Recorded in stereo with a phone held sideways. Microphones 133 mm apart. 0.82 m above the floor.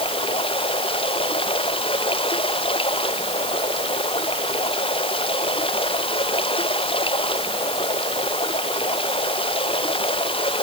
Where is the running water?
40° left (ahead or behind).